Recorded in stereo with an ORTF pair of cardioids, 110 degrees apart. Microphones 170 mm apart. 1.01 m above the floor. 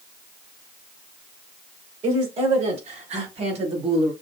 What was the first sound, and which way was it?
A woman speaking, 40° right.